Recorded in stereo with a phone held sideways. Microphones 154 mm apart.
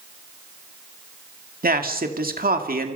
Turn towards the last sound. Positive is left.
turn(degrees=-70)  # may be behind; listen again after turning